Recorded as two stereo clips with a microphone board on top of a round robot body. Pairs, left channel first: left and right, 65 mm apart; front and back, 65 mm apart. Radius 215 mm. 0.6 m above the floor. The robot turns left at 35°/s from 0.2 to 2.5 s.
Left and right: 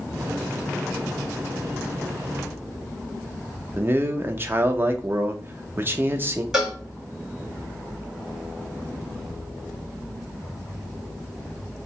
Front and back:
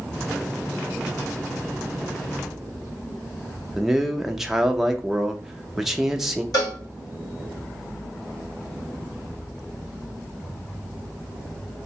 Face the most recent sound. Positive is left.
turn(degrees=-5)